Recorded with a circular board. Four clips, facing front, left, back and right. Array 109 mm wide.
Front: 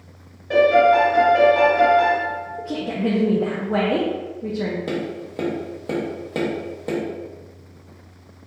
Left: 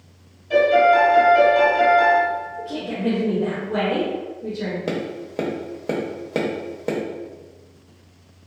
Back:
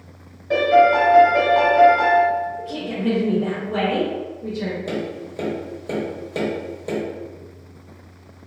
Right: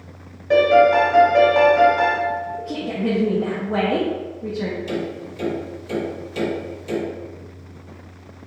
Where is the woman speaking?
35° right, 0.7 m.